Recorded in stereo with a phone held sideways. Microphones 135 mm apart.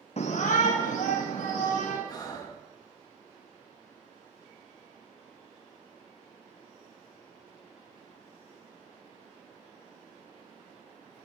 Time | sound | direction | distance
0.2 | a shout | 55° left (ahead or behind) | 0.6 m
2.1 | breathing | 30° left (ahead or behind) | 1.4 m